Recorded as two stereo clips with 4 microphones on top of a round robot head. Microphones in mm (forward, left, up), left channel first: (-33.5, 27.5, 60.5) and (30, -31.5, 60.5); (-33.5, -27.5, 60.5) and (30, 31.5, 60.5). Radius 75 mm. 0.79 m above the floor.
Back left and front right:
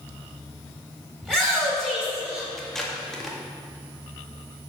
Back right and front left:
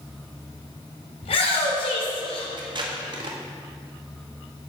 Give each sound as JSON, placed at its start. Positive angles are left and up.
{"t": 1.2, "sound": "a shout", "azimuth_deg": -135, "distance_m": 4.5}
{"t": 2.6, "sound": "tape being pulled", "azimuth_deg": 50, "distance_m": 1.8}